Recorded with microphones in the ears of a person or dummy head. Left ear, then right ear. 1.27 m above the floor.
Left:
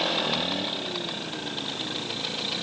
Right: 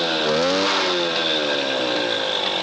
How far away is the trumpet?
No trumpet in this recording.